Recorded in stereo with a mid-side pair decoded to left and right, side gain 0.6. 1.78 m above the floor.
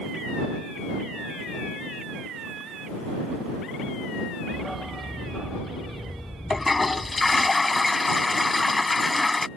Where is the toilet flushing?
15° left.